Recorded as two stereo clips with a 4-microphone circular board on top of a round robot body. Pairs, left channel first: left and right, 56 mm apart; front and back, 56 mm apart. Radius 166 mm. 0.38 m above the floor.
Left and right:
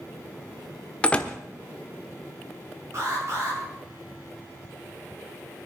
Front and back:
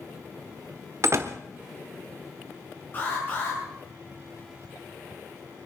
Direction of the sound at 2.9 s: 55° right.